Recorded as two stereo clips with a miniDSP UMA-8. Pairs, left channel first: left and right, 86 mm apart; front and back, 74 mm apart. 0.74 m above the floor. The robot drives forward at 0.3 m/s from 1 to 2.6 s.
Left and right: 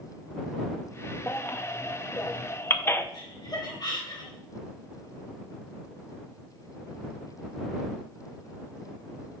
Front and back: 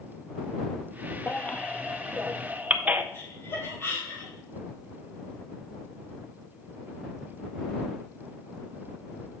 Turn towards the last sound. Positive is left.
turn(degrees=55)